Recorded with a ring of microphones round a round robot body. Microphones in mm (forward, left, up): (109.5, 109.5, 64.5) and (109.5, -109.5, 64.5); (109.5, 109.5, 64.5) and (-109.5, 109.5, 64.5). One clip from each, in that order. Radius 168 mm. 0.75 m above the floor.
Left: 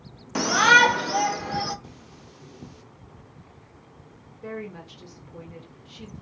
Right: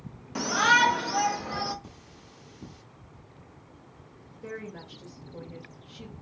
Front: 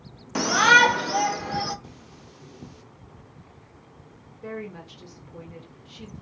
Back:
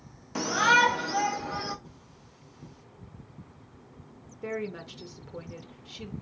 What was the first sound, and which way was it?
A shout, 55° left.